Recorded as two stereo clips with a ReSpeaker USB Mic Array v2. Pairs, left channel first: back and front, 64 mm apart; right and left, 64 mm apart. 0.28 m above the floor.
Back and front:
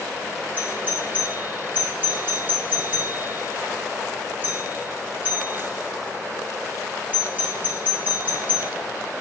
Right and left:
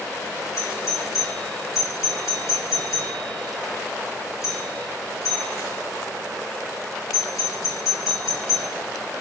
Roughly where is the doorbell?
Ahead right.